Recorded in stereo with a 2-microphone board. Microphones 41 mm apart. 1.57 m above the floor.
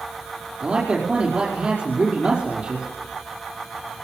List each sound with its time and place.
0.6 s a man speaking: 25° right (ahead or behind), 5 m